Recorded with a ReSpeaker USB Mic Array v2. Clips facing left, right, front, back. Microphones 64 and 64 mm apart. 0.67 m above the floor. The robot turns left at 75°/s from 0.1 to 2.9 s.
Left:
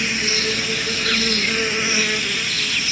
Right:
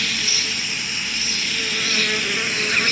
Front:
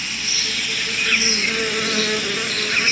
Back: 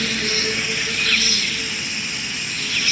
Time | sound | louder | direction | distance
0.0 | an insect | left 4 dB, back 5 dB | 155° left | ?